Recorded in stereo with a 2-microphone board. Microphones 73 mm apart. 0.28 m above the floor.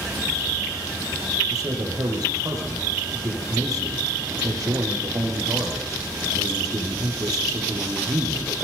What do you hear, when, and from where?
1.5 s a man speaking: 55° right (ahead or behind), 7.5 m